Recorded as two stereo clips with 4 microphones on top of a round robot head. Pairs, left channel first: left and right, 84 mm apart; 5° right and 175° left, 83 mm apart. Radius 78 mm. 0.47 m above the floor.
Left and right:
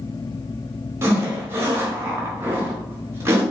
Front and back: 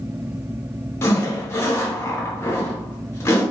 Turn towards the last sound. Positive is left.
turn(degrees=-45)